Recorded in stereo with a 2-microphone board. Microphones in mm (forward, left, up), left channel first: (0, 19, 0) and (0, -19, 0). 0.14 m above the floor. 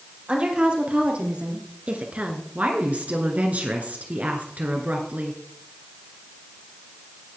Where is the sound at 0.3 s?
35° right (ahead or behind), 3 m; by 2.5 s 40° right (ahead or behind), 1.6 m.